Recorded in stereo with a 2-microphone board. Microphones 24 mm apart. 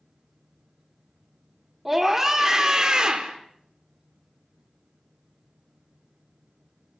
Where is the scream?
10° right (ahead or behind), 1.7 m; by 3.4 s 40° right (ahead or behind), 1.9 m.